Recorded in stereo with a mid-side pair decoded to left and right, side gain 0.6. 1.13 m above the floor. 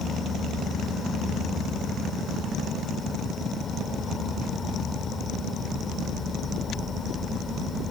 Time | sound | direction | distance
0.0 | an insect | 30° left | ?